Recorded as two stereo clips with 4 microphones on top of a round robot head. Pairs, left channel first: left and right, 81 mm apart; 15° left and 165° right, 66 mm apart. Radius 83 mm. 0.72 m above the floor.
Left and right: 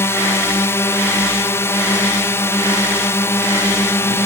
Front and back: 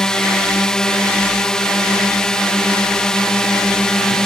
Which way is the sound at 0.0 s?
85° left.